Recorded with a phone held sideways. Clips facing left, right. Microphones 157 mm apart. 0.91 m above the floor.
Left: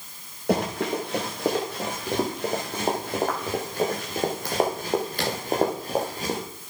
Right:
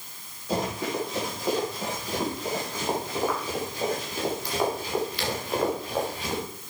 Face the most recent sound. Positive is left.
turn(degrees=45)  # may be behind; listen again after turning